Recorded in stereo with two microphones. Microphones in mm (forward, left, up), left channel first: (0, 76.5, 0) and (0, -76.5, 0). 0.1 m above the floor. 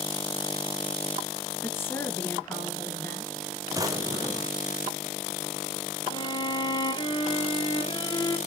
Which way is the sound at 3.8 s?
20° right (ahead or behind).